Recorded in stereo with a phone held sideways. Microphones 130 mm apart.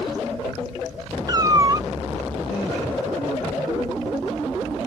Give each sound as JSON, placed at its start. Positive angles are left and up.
{"t": 1.3, "sound": "a cat meowing", "side_deg": -30}